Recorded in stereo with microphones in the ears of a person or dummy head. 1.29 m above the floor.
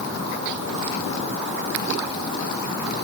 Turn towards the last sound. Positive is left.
No sound to turn to.